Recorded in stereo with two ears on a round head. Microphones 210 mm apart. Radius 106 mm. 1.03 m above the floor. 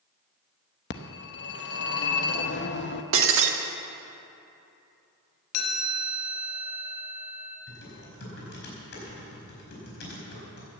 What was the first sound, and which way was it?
A phone ringing, 50° left (ahead or behind).